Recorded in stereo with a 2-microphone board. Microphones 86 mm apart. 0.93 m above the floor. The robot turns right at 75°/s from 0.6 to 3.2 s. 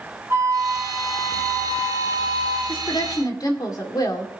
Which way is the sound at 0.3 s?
30° right.